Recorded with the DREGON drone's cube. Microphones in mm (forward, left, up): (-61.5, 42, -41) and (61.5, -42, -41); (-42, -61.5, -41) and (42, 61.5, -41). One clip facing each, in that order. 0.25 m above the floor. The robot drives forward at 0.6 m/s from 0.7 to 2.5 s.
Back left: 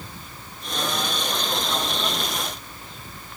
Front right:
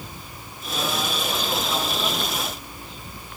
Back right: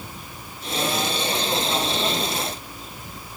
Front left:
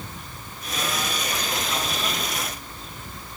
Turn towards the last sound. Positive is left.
No sound to turn to.